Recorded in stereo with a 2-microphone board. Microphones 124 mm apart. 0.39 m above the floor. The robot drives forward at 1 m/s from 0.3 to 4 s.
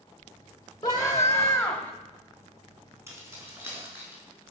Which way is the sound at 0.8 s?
30° left (ahead or behind).